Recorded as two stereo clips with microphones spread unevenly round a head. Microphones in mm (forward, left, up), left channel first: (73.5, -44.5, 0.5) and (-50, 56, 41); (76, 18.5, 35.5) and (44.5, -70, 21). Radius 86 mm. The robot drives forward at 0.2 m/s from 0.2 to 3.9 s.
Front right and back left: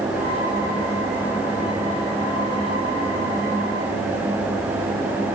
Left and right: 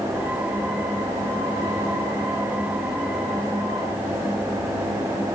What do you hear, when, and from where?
Only background noise.